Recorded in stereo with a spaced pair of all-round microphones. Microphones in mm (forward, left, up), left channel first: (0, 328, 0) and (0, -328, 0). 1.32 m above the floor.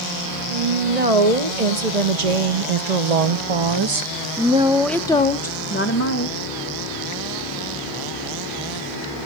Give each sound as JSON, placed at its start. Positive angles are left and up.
{"t": 0.5, "sound": "a woman speaking", "side_deg": -70, "distance_m": 1.9}